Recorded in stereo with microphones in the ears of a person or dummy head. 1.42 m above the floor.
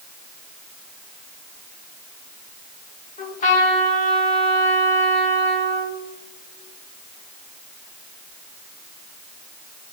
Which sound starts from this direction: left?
A trumpet, at 3.2 s.